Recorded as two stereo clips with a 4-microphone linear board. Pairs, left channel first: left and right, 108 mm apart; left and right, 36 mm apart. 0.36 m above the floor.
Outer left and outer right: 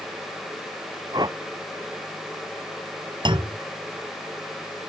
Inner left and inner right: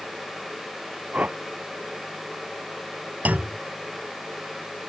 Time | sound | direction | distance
1.1 | a whoosh | 45° right (ahead or behind) | ?
3.2 | a clunk | 55° right (ahead or behind) | ?